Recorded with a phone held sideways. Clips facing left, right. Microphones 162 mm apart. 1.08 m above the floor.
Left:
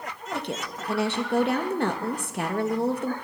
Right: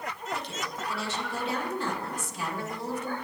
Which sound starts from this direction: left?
A woman speaking, at 0.3 s.